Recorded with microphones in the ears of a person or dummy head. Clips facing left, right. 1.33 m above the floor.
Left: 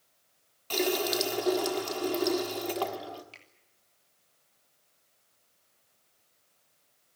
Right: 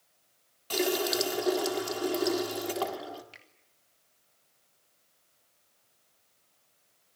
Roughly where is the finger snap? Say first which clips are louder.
Even; right.